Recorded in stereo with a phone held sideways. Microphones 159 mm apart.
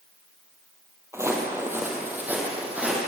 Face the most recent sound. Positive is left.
turn(degrees=-10)  # may be behind; listen again after turning